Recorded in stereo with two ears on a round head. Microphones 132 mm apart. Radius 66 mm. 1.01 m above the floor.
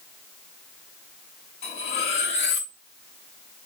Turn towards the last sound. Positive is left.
turn(degrees=45)  # may be behind; listen again after turning